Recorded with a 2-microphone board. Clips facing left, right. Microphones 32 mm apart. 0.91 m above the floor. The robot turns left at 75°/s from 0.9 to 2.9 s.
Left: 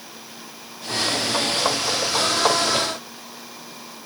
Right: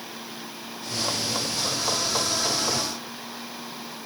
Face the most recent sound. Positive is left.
No sound to turn to.